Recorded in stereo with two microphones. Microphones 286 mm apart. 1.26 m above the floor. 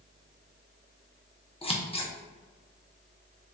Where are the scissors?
20° left (ahead or behind), 0.8 m.